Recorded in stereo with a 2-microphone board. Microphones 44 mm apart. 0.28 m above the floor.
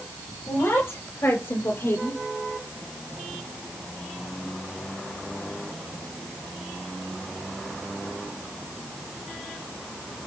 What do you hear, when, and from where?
0.5 s a woman speaking: 75° left (ahead or behind), 6 m